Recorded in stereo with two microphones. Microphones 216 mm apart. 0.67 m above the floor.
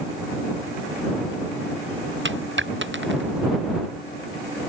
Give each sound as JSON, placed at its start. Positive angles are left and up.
{"t": 2.2, "sound": "a dropped coin", "side_deg": -60}